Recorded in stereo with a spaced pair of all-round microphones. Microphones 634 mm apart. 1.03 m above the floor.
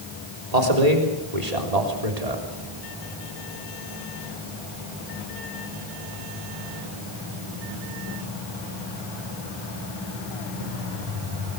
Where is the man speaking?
80° right, 3.5 m; by 2.4 s 70° right (ahead or behind), 3.5 m.